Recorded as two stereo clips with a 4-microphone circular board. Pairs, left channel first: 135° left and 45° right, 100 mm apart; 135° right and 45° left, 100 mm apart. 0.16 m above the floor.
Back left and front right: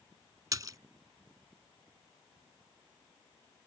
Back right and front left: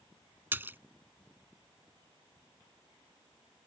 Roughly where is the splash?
Ahead.